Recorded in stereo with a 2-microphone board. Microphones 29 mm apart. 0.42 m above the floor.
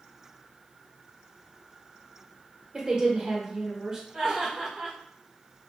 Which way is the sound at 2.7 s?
10° right (ahead or behind).